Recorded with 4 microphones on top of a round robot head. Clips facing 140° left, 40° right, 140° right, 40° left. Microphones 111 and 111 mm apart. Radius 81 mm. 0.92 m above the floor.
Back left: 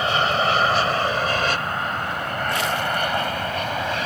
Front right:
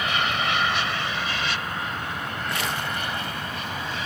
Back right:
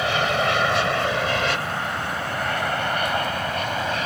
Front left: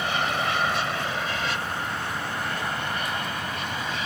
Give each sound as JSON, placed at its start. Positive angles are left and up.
{"t": 0.0, "sound": "an aircraft", "azimuth_deg": -160}